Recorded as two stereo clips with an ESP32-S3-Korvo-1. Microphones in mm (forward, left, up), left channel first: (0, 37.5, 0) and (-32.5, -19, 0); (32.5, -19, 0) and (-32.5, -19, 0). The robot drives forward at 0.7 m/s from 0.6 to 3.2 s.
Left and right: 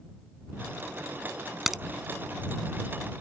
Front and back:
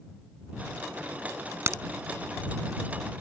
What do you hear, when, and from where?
1.7 s a crack: 155° left; by 1.8 s 160° left